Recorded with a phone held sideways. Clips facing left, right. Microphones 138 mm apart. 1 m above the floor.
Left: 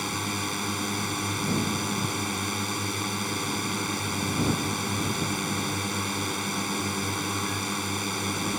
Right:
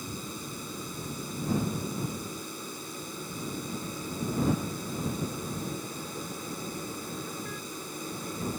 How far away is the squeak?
I don't hear a squeak.